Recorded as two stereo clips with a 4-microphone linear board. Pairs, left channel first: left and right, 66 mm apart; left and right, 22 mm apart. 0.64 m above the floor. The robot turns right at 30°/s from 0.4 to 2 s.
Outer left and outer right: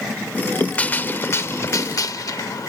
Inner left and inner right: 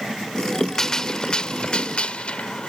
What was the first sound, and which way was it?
A gunshot, 25° left.